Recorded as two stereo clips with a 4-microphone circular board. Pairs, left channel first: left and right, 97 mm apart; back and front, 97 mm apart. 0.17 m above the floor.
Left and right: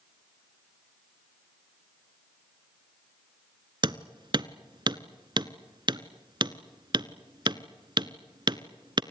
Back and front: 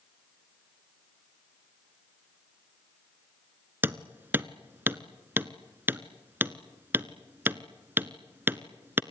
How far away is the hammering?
About 0.9 m.